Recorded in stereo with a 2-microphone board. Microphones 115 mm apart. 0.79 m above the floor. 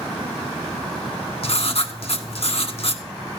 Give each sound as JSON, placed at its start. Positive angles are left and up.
{"t": 1.4, "sound": "writing", "side_deg": 65, "distance_m": 1.4}